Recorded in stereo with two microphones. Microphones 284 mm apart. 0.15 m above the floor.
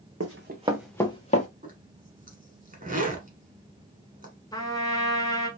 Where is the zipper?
30° right (ahead or behind), 1.0 m.